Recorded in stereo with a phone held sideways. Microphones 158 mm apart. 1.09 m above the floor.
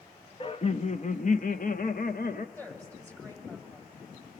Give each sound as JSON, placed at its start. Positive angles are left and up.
{"t": 0.4, "sound": "laughter", "side_deg": 35, "distance_m": 0.8}
{"t": 2.5, "sound": "a woman speaking", "side_deg": 15, "distance_m": 7.5}